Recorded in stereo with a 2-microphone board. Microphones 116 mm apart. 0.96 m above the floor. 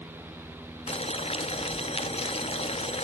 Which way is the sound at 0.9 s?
60° left (ahead or behind).